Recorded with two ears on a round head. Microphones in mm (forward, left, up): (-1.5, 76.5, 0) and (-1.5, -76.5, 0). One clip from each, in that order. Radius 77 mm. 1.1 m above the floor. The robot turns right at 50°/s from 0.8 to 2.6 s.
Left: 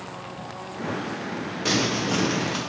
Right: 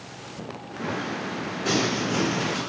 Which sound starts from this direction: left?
Crumpling, at 1.6 s.